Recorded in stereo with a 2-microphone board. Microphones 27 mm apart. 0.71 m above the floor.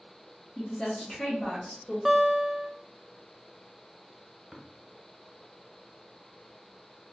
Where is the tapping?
5° left (ahead or behind), 1.0 m.